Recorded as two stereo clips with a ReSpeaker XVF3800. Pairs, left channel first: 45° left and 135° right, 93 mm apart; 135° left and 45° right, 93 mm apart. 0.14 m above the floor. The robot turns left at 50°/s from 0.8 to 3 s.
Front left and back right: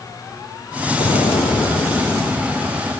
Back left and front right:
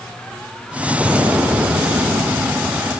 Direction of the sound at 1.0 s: 40° left.